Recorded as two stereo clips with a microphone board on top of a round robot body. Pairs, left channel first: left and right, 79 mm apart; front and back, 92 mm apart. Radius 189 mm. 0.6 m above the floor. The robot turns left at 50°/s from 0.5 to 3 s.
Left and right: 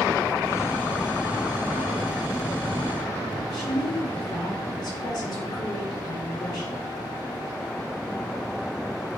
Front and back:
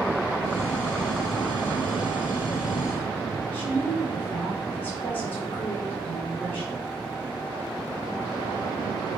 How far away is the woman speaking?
About 1.3 m.